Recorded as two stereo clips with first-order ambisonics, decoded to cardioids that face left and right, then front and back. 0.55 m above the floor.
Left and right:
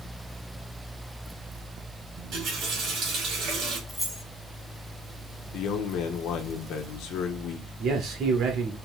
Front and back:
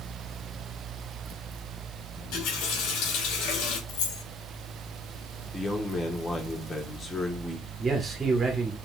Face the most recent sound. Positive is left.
turn(degrees=-110)